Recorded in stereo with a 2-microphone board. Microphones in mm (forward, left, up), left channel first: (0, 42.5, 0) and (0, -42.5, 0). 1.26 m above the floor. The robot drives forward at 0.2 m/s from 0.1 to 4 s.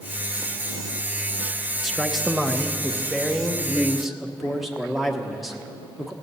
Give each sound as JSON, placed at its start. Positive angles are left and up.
{"t": 1.8, "sound": "a man speaking", "side_deg": 0, "distance_m": 0.9}